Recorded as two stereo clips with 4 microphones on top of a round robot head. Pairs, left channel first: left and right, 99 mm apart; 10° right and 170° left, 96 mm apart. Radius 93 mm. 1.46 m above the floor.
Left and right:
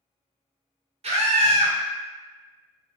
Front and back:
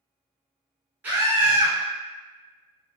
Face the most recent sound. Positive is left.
turn(degrees=-115)